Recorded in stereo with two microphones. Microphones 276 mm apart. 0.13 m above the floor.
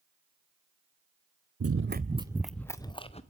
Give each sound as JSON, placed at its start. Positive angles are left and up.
{"t": 1.6, "sound": "running footsteps", "side_deg": -60, "distance_m": 0.6}